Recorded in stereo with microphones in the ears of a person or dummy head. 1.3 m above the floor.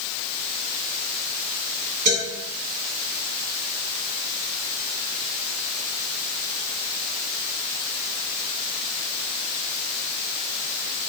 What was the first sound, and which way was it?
A man speaking, 45° right (ahead or behind).